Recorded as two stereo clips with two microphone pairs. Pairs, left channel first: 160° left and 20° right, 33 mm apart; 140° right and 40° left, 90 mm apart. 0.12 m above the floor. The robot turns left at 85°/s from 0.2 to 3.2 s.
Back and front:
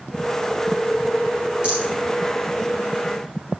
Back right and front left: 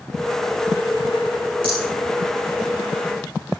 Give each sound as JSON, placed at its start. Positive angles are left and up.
{"t": 1.6, "sound": "a rattle", "azimuth_deg": 35, "distance_m": 6.5}